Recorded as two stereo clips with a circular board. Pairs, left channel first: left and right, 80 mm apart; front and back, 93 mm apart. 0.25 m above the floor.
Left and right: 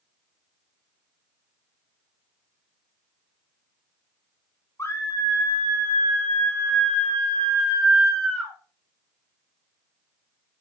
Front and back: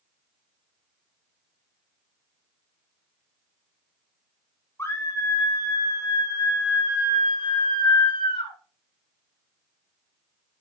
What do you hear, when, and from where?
4.8 s a scream: 50° left, 2 m; by 8.6 s 5° left, 3 m